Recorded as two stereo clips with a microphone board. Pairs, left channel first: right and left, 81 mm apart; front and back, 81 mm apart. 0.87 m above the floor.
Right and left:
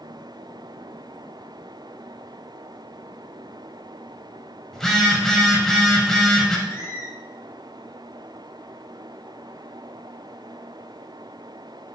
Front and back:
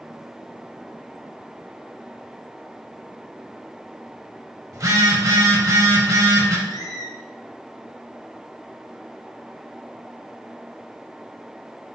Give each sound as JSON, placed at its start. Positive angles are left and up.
{"t": 4.7, "sound": "a phone buzzing", "azimuth_deg": -170, "distance_m": 0.8}
{"t": 6.7, "sound": "a squeak", "azimuth_deg": -35, "distance_m": 0.8}